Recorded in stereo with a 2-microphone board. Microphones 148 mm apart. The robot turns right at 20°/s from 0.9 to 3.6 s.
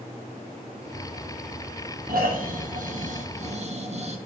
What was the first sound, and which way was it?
Snoring, 80° right.